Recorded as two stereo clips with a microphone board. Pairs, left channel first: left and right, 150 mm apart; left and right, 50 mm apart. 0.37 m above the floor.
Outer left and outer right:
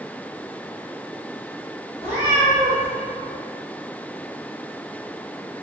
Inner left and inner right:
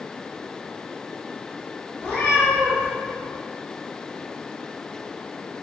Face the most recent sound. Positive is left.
turn(degrees=30)  # may be behind; listen again after turning